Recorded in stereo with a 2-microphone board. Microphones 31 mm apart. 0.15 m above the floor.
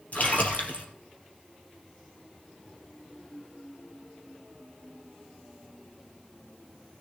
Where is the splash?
55° left (ahead or behind), 3 m.